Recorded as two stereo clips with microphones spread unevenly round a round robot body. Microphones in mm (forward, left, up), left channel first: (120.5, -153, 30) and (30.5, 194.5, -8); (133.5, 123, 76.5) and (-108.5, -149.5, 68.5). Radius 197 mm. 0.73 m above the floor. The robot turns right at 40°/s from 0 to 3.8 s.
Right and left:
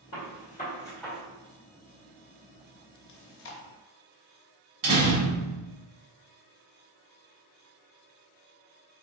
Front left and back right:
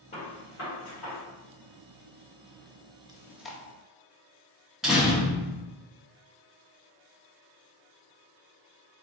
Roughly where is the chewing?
Ahead right.